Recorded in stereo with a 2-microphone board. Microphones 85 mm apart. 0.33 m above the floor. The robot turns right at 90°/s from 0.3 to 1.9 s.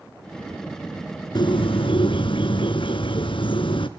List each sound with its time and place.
1.4 s a bird: 55° left, 1.2 m; by 3.9 s 105° left, 1.2 m